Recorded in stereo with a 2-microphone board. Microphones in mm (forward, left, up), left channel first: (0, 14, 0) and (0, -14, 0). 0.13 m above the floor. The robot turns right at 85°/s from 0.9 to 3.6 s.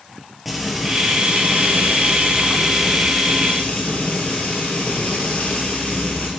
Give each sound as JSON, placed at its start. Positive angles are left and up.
{"t": 0.5, "sound": "frying", "azimuth_deg": -175, "distance_m": 2.0}